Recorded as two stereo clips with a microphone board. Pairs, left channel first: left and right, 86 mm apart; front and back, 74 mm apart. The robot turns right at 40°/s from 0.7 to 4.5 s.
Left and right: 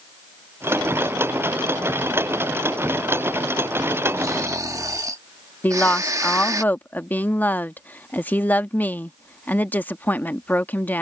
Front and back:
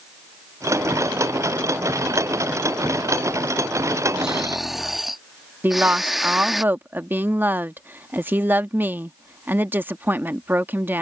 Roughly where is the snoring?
Right.